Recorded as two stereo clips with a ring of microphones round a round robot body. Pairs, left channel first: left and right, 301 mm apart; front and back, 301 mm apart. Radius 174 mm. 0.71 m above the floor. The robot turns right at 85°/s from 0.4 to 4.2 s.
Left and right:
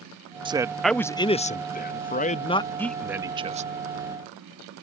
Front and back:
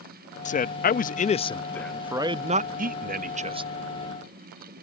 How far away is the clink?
No clink in this recording.